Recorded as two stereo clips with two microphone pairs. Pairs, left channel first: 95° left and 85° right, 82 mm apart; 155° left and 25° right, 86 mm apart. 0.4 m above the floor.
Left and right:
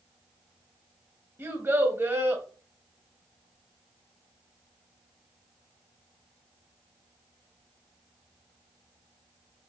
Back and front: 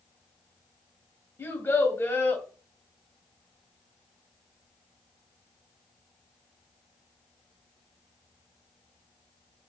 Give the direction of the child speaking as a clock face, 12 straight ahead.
5 o'clock.